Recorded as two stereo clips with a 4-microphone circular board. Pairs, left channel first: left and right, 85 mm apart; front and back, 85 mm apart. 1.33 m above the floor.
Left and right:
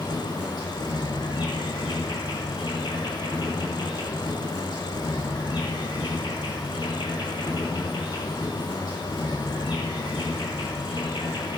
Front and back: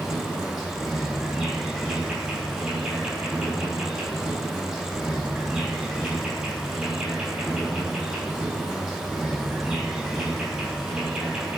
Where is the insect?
100° left, 4 m.